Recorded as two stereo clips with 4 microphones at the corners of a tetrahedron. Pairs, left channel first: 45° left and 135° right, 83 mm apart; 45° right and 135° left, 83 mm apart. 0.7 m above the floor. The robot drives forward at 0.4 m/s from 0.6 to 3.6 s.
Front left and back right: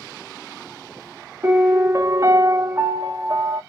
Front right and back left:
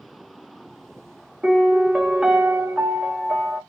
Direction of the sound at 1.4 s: 150° right.